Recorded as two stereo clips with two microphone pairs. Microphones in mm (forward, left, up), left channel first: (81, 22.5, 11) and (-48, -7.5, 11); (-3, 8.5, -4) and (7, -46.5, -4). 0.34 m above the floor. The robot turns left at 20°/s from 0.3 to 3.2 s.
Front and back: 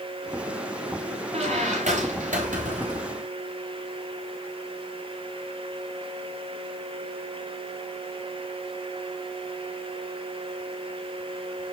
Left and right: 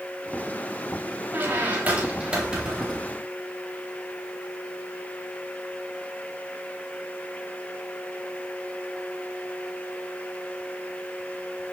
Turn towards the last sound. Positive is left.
turn(degrees=-165)